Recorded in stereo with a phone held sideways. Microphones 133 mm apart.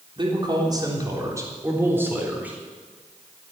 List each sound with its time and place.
0.2 s a man speaking: 35° right (ahead or behind), 3.5 m; by 2.6 s 10° right (ahead or behind), 4 m